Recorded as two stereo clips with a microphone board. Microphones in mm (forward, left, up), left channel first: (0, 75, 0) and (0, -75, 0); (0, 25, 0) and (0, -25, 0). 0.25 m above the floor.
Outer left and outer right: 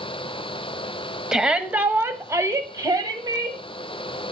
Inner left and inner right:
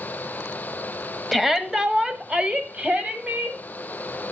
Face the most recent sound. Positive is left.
turn(degrees=-25)  # may be behind; listen again after turning